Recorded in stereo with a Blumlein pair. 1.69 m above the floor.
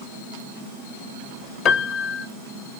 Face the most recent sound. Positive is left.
turn(degrees=35)